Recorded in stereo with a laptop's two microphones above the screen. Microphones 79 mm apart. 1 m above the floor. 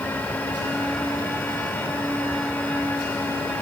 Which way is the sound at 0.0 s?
25° left (ahead or behind).